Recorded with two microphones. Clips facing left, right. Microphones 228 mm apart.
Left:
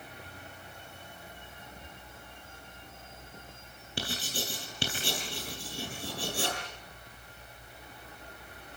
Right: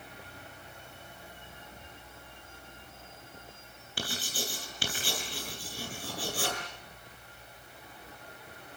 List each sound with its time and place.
4.0 s writing: 30° left (ahead or behind), 10 m